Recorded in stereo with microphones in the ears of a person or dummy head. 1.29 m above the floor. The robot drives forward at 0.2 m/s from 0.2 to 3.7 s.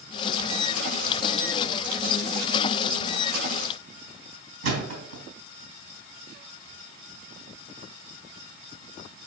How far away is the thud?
About 3.5 m.